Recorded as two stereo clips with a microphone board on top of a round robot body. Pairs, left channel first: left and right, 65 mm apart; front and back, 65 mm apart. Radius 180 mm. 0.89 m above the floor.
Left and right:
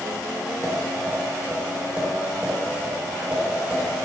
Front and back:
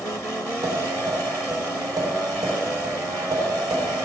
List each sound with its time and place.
0.6 s tapping: 165° right, 4.5 m